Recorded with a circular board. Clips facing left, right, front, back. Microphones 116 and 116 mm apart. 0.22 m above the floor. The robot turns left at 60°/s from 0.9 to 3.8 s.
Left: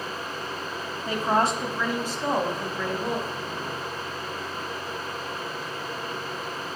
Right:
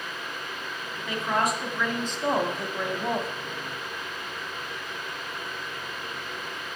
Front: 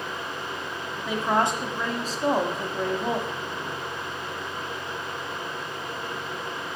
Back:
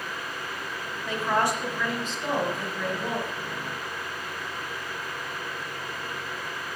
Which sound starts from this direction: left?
A woman speaking, at 1.1 s.